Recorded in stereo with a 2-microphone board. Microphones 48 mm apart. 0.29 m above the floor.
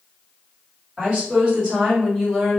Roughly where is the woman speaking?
Right.